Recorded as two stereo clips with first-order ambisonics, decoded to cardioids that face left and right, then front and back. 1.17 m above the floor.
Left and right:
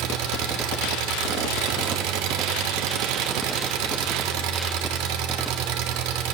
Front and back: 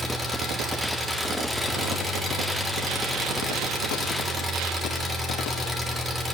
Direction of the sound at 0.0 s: 100° right.